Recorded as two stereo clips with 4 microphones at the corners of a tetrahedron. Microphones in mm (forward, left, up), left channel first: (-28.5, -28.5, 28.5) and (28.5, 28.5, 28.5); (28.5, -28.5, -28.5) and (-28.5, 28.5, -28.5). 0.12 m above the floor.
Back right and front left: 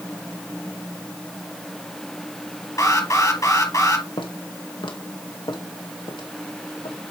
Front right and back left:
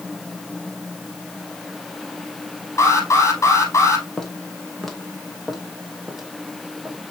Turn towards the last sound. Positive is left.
turn(degrees=-140)